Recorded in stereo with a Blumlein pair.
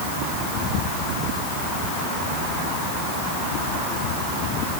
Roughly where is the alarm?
I don't hear an alarm.